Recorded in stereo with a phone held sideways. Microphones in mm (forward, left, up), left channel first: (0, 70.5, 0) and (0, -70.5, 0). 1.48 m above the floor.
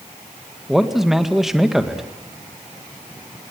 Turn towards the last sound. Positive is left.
turn(degrees=0)  # may be behind; listen again after turning